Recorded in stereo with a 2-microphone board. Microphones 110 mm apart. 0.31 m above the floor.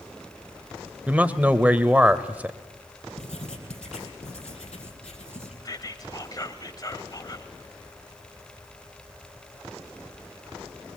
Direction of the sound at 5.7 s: 35° left (ahead or behind).